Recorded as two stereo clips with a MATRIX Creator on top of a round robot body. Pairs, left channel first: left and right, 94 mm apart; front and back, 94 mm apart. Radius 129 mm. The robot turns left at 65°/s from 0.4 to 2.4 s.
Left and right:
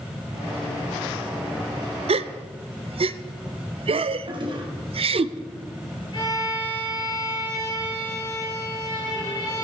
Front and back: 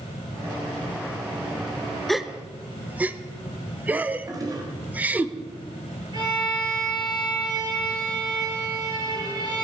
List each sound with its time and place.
2.1 s a gasp: 85° right, 0.5 m; by 5.3 s 110° right, 0.5 m
4.3 s a toilet flushing: 130° right, 2 m
6.1 s a violin: 135° left, 4.5 m